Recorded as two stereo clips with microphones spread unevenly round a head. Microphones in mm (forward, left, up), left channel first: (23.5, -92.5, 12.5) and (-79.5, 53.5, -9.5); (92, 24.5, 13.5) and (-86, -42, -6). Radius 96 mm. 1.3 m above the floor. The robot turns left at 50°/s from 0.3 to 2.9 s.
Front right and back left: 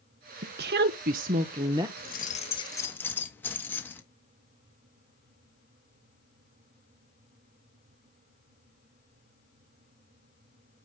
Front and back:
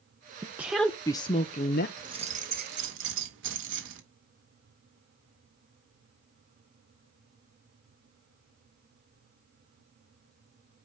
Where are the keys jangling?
85° right, 1.5 m; by 4.0 s 135° right, 1.5 m.